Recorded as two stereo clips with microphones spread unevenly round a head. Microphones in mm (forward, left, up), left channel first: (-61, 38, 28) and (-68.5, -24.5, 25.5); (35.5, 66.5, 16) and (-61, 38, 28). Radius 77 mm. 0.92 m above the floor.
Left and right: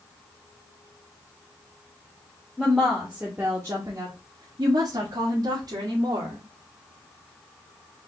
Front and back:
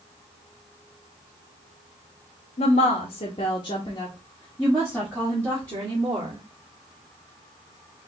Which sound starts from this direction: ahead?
A woman speaking, at 2.6 s.